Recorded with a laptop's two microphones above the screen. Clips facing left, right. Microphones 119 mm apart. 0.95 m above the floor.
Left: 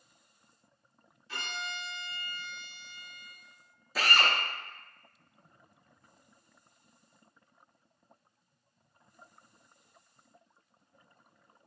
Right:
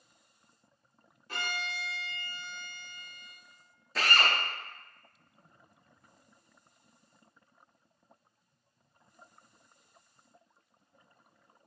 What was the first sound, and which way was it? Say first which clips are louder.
A violin: right 2 dB; 50° right (ahead or behind).